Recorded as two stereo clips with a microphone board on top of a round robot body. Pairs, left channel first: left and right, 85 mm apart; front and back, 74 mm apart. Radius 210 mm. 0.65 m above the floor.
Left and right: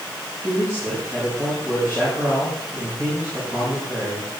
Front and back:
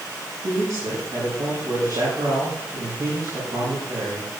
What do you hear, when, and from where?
0.4 s a man speaking: 145° right, 7.5 m